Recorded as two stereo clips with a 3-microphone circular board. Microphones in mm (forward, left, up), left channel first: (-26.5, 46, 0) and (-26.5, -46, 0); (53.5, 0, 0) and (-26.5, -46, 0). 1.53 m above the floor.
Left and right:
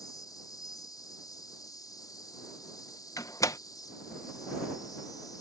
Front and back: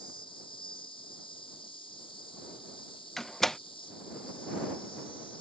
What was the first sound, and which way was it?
An insect, 45° left.